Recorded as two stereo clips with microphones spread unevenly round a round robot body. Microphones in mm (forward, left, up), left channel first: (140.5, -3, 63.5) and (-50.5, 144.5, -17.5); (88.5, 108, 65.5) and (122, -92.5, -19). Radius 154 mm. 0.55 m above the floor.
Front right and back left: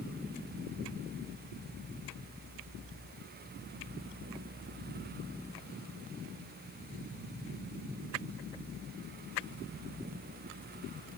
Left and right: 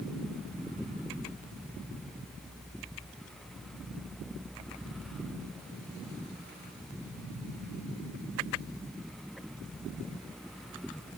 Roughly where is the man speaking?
No man speaking in this recording.